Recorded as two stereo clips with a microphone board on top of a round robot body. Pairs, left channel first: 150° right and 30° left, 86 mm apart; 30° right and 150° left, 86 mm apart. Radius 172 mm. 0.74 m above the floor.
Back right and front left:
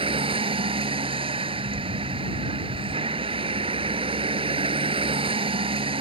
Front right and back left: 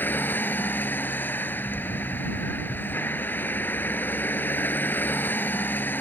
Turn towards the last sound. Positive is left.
turn(degrees=40)